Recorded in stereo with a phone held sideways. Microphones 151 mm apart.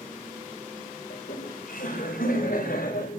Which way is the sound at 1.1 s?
70° left (ahead or behind).